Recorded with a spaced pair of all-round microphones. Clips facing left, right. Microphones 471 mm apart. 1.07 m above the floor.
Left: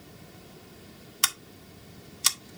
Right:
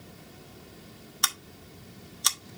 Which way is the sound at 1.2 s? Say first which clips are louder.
Even; 45° left (ahead or behind).